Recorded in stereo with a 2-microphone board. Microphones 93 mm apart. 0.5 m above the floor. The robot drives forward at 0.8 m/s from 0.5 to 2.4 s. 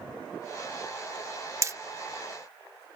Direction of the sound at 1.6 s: 30° right (ahead or behind).